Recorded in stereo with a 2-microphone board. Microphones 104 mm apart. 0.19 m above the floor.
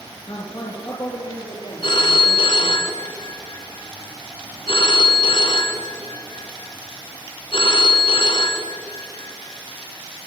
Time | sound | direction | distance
0.3 | a man speaking | 45° left (ahead or behind) | 2 m
1.8 | a phone ringing | 55° left (ahead or behind) | 1.6 m